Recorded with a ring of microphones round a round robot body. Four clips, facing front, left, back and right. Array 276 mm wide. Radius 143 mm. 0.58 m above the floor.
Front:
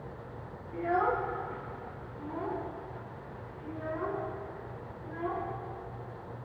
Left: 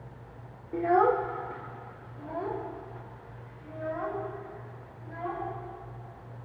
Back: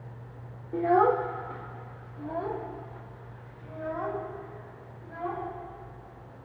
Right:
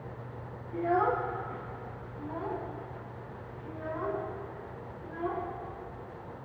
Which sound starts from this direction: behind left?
A child speaking, at 0.7 s.